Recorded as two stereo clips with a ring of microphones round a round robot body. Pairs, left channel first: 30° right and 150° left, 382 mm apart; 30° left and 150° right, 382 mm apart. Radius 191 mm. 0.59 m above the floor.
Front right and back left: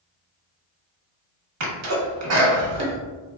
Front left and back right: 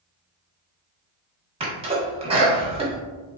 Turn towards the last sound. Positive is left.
turn(degrees=145)